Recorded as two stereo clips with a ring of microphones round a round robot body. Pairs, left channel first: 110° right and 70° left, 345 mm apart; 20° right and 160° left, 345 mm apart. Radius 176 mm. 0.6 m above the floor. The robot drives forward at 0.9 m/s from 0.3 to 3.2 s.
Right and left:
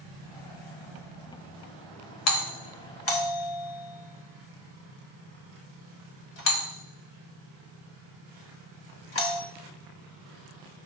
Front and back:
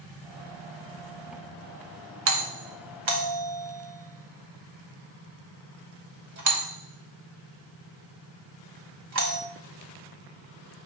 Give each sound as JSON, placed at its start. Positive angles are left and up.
{"t": 2.3, "sound": "a doorbell", "azimuth_deg": -155, "distance_m": 2.0}